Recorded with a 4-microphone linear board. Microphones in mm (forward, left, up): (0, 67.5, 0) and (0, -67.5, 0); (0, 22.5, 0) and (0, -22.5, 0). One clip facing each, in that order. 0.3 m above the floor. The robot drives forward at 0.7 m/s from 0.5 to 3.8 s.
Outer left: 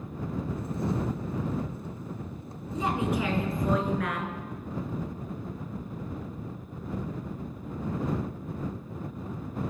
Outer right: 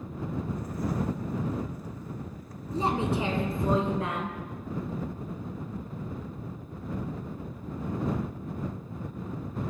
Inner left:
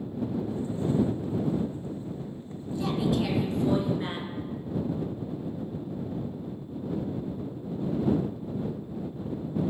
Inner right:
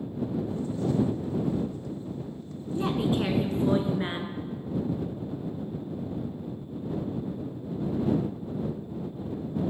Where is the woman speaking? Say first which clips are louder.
Outer right 1 dB, inner right 1 dB; 30° right (ahead or behind), 2.5 m; by 4.4 s 25° right (ahead or behind), 3.5 m.